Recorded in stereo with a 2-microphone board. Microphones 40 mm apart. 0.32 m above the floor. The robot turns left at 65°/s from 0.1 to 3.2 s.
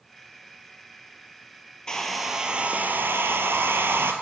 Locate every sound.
1.9 s a hair dryer: 20° left, 1.3 m; by 4.1 s 65° right, 1.3 m